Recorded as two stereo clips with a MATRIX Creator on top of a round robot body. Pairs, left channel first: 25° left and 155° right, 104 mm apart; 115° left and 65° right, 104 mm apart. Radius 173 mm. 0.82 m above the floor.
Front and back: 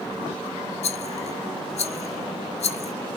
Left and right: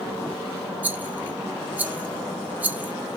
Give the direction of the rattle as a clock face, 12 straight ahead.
12 o'clock.